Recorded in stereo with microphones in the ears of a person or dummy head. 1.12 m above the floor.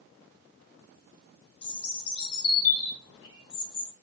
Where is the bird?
30° left (ahead or behind), 1.3 m.